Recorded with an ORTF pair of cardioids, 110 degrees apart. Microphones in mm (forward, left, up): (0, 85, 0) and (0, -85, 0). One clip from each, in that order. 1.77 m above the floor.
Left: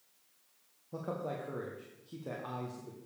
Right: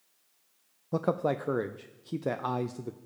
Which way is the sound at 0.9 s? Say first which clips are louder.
Right 10 dB; 60° right.